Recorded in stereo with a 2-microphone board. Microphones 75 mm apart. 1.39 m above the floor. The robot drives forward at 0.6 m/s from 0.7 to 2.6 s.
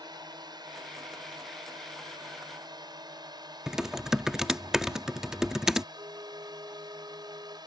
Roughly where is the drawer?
No drawer in this recording.